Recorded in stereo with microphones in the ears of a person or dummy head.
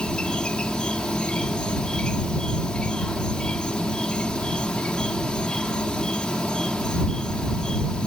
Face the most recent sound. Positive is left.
turn(degrees=5)  # may be behind; listen again after turning